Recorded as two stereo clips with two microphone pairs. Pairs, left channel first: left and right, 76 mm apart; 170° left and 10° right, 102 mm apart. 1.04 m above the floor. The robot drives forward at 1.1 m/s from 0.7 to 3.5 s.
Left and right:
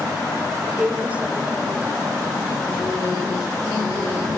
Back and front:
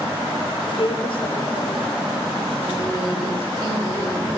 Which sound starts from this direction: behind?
A woman speaking, at 0.7 s.